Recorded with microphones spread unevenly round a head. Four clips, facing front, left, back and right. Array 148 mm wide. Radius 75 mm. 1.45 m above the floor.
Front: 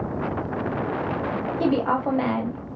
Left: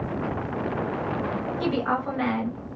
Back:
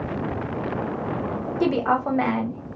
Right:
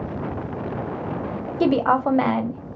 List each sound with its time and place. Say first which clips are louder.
1.6 s a woman speaking: right 9 dB, back 1 dB; 95° right, 0.6 m